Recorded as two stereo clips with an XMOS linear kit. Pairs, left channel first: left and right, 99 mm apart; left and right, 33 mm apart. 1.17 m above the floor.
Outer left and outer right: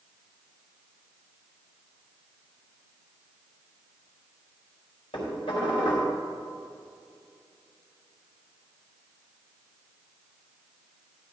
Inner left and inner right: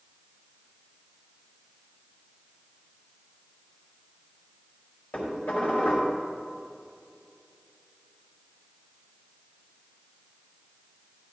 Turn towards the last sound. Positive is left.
turn(degrees=70)  # may be behind; listen again after turning